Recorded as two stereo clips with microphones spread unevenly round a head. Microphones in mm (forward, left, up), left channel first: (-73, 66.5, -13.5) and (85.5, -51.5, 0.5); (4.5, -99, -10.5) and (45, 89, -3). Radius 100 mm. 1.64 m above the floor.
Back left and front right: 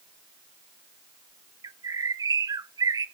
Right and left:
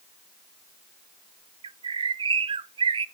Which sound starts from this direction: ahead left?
A bird, at 1.6 s.